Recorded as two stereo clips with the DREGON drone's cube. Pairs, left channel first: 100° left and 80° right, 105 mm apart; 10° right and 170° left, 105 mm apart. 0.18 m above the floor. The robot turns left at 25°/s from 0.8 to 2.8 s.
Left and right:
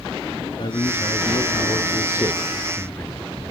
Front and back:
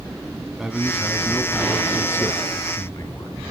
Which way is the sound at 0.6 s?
85° left.